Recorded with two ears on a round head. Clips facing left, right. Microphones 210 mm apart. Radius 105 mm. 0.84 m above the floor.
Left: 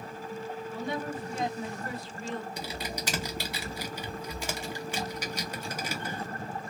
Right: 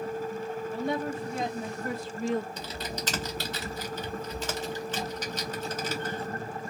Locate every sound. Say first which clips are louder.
0.7 s a woman speaking: right 4 dB; 45° right (ahead or behind), 1.5 m; by 2.5 s 35° right (ahead or behind), 0.7 m
2.6 s typing on a keyboard: right 1 dB; 10° left (ahead or behind), 0.5 m